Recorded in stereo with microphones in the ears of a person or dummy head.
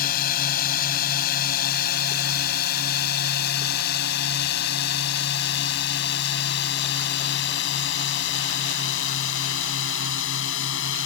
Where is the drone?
55° left (ahead or behind); by 11.1 s 80° left.